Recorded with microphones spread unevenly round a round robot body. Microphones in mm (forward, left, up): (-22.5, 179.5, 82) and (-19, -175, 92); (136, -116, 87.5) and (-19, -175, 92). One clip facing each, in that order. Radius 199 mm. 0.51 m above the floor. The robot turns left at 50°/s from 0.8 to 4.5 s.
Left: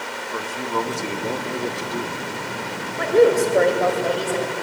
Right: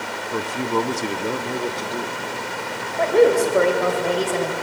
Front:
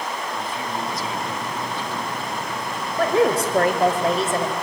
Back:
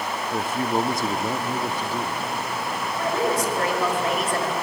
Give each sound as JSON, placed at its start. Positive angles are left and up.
{"t": 0.3, "sound": "a man speaking", "azimuth_deg": -135, "distance_m": 1.2}
{"t": 3.0, "sound": "a woman speaking", "azimuth_deg": 25, "distance_m": 2.5}